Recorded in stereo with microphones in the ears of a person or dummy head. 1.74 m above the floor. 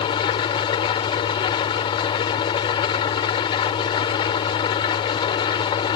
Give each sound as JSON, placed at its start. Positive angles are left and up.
{"t": 0.0, "sound": "an engine running", "side_deg": 30}